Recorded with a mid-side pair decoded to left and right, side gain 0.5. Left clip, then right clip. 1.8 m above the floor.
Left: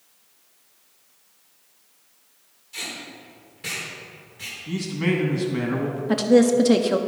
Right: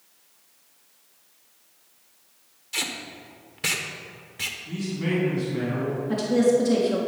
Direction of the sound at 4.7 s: 55° left.